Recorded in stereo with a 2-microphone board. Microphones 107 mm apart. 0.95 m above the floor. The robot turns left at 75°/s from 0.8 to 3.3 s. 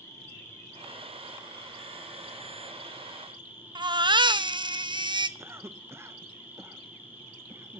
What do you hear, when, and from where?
0.0 s an insect: 25° left, 6 m; by 7.8 s 160° right, 6 m
3.8 s a baby crying: 45° right (ahead or behind), 0.8 m
5.4 s a cough: 25° right (ahead or behind), 0.8 m